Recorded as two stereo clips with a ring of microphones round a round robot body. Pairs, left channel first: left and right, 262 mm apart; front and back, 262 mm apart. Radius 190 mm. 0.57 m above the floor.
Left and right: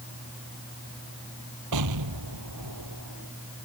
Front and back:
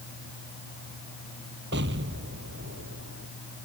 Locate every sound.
1.7 s an explosion: 115° right